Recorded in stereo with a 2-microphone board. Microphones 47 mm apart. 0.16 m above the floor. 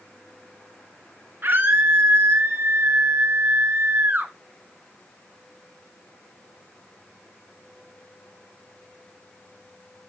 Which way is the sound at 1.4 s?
50° right (ahead or behind).